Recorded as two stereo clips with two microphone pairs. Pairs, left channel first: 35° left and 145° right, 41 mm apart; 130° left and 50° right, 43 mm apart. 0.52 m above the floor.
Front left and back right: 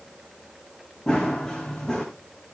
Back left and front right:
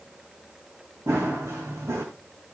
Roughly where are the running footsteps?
Ahead right.